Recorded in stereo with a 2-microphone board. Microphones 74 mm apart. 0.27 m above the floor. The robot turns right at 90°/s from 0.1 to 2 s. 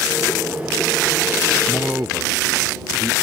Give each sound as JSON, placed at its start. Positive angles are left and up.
{"t": 1.7, "sound": "a man speaking", "side_deg": 0}